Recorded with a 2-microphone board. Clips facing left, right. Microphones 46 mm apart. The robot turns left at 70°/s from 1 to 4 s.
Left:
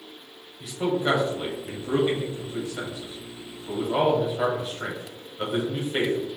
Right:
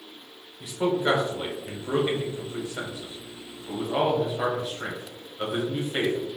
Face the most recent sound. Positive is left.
turn(degrees=10)  # may be behind; listen again after turning